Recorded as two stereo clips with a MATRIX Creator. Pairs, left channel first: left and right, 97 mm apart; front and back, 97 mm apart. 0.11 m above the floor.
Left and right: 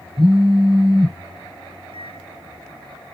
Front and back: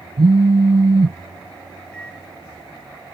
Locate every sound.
0.2 s a phone buzzing: straight behind
1.9 s a microwave: 80° right